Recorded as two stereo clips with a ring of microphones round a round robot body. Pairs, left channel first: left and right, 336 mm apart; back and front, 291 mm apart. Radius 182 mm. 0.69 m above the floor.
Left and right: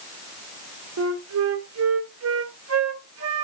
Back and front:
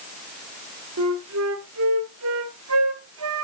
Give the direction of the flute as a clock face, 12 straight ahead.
1 o'clock.